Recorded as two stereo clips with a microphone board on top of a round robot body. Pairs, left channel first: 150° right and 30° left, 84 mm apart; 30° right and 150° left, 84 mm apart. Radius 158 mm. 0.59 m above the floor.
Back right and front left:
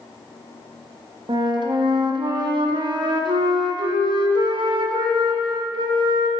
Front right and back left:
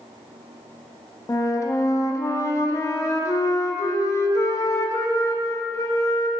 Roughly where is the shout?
No shout in this recording.